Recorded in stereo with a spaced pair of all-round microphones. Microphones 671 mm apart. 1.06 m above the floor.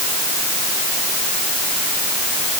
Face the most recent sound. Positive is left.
No sound to turn to.